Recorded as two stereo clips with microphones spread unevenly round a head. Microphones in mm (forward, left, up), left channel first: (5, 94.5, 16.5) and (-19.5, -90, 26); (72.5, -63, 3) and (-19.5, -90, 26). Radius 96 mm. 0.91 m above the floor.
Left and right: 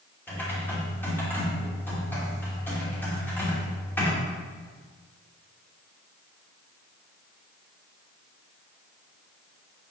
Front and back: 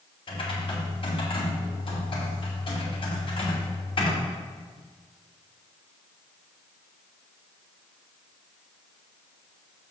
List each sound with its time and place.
0.3 s typing on a keyboard: 5° left, 2.5 m